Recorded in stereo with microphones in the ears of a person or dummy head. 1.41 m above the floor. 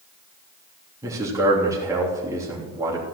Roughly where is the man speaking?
Centre.